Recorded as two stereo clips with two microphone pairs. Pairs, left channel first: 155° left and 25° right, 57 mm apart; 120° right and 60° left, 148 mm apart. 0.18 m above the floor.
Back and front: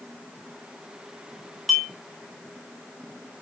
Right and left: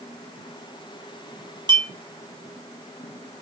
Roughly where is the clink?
Ahead left.